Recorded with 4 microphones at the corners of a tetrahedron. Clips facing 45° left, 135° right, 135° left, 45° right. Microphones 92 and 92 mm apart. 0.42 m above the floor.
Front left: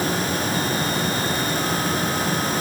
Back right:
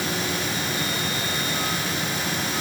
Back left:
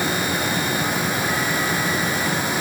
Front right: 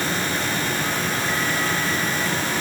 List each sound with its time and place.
Only background noise.